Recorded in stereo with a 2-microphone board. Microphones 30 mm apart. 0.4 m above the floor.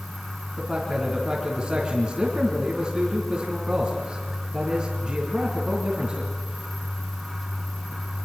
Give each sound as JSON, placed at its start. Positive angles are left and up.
{"t": 0.6, "sound": "a man speaking", "side_deg": -20, "distance_m": 4.0}